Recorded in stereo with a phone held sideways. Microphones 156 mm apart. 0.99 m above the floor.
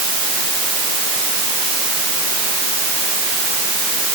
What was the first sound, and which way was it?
Only background noise.